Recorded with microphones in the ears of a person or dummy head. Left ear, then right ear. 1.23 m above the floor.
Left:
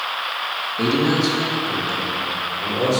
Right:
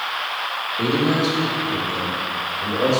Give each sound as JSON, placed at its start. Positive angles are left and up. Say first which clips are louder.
{"t": 0.8, "sound": "a man speaking", "louder": "left 1 dB", "side_deg": 50, "distance_m": 1.9}